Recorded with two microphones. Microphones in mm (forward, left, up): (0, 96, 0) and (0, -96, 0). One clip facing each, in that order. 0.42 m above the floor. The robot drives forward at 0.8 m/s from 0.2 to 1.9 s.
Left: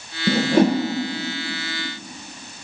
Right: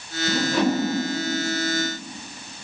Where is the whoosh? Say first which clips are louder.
Left 5 dB; 50° left (ahead or behind), 1.0 m; by 0.8 s 40° left (ahead or behind), 1.2 m.